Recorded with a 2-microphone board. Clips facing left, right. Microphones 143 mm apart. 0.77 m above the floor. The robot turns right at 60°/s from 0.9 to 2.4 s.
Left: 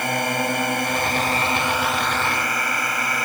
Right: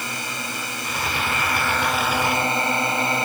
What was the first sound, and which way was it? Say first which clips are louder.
A drone: left 9 dB; 115° left.